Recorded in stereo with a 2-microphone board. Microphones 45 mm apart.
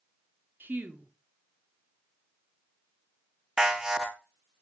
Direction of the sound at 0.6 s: 45° right (ahead or behind).